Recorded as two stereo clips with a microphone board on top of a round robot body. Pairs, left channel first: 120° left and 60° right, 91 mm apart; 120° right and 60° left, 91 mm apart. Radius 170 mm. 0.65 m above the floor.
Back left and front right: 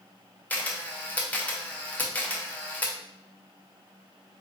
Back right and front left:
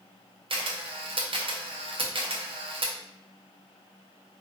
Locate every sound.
0.5 s a camera shutter: 50° left, 0.7 m